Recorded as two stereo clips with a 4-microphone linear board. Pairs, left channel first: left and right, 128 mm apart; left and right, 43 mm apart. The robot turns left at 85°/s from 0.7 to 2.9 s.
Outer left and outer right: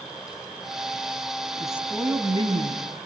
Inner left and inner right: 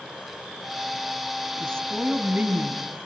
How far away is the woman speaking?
About 4.5 m.